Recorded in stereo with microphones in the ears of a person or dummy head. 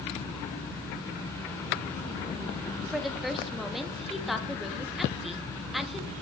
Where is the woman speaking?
Centre (ahead or behind), 0.6 m.